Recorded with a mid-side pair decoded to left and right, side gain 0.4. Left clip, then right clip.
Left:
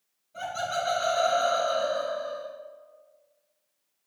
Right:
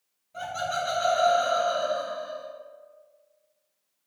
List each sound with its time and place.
0.3 s laughter: 45° right, 1.7 m; by 2.5 s 15° left, 1.0 m